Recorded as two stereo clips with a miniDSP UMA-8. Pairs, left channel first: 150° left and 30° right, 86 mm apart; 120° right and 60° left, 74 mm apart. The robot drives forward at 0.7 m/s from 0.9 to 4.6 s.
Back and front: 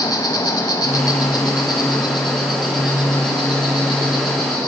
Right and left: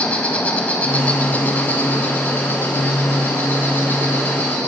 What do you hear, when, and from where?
0.0 s an insect: 170° left, 0.9 m; by 4.7 s straight behind, 3.5 m